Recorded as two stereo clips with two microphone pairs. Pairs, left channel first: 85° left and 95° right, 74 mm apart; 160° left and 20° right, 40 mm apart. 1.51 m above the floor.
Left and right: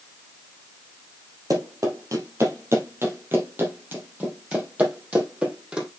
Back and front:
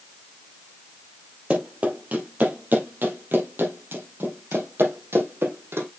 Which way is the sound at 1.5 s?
70° right.